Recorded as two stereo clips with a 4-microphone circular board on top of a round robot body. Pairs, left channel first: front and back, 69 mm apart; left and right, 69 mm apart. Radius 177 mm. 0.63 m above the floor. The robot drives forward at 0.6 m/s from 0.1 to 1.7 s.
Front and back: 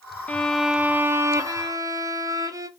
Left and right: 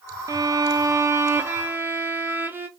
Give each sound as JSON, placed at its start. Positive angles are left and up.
{"t": 0.3, "sound": "a violin", "azimuth_deg": -70, "distance_m": 0.6}